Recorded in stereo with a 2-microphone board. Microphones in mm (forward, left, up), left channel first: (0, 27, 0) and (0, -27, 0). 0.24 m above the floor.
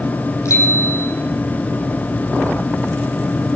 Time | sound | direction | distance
0.5 | a bicycle bell | 70° left (ahead or behind) | 7 m